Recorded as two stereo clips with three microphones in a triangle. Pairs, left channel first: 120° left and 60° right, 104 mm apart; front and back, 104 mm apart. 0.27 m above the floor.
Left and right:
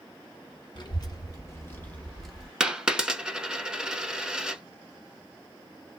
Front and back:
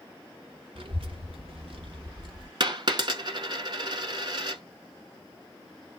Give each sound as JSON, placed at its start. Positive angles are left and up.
{"t": 0.8, "sound": "a child speaking", "azimuth_deg": 160, "distance_m": 1.5}
{"t": 2.6, "sound": "a dropped coin", "azimuth_deg": -140, "distance_m": 0.6}